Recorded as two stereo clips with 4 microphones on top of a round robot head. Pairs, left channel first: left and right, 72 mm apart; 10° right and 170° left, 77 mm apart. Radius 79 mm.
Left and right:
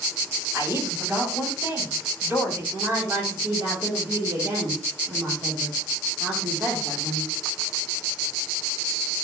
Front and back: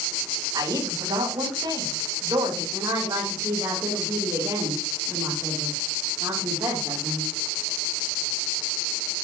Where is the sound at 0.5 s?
160° right, 6.5 m.